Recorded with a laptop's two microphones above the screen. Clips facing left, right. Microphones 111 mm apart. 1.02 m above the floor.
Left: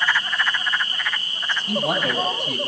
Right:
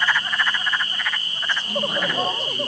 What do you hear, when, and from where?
1.7 s a man speaking: 70° left (ahead or behind), 7 m